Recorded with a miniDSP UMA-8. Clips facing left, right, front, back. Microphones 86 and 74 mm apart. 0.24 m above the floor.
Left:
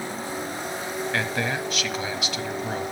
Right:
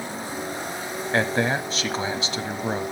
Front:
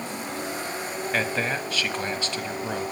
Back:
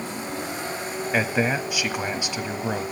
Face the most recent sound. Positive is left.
turn(degrees=-115)